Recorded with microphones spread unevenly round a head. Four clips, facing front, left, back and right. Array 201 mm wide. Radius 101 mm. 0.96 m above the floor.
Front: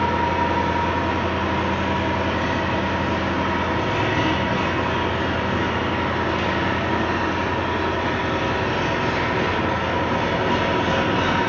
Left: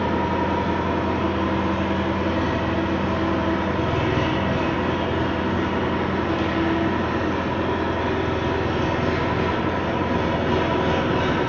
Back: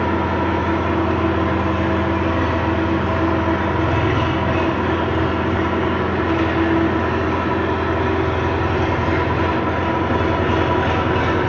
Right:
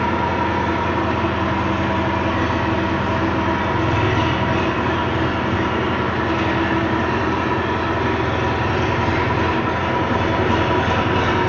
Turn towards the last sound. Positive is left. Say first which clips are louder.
# right 3 dB, back 1 dB
turn(degrees=-135)